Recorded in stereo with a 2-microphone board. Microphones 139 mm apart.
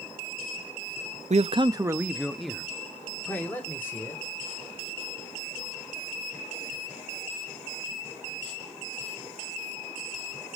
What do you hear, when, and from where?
1.3 s a man speaking: 55° right (ahead or behind), 0.5 m; by 4.2 s 15° left (ahead or behind), 2.5 m